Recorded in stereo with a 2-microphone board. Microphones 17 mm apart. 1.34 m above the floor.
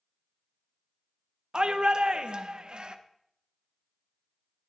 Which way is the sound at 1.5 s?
55° right (ahead or behind).